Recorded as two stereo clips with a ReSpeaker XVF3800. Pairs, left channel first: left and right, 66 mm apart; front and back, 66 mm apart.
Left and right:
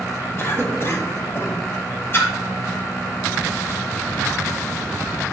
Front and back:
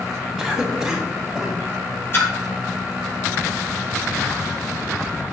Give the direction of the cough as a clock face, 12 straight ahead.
9 o'clock.